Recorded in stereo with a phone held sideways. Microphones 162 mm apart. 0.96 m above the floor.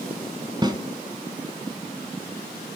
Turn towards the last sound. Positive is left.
turn(degrees=-25)  # may be behind; listen again after turning